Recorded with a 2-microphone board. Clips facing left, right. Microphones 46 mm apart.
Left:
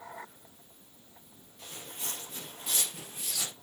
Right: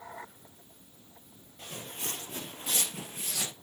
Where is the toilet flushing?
I don't hear a toilet flushing.